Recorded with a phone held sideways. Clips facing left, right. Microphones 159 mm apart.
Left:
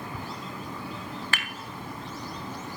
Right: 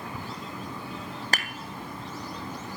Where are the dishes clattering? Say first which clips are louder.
Right 5 dB; 40° right (ahead or behind), 0.8 m.